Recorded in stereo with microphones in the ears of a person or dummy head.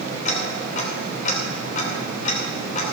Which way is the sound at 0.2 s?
40° left (ahead or behind).